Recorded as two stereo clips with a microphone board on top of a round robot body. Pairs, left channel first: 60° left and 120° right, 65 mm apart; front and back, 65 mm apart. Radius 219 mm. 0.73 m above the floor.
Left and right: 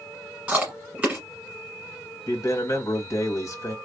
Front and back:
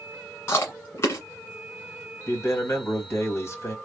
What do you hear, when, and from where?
0.5 s chewing: 45° right, 1.5 m
2.3 s a man speaking: 35° left, 1.7 m